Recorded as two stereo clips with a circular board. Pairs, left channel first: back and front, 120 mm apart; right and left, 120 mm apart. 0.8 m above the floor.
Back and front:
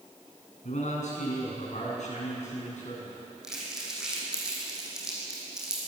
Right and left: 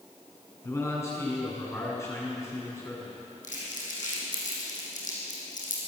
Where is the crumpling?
85° right, 6 m.